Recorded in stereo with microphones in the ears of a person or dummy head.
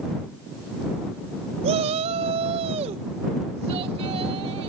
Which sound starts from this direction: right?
A shout, at 1.6 s.